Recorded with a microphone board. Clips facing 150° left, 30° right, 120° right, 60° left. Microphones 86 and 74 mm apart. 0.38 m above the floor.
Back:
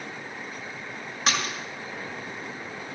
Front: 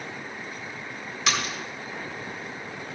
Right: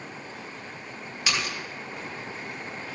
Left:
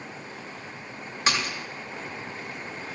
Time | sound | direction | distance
1.3 | a splash | 110° left | 2.5 m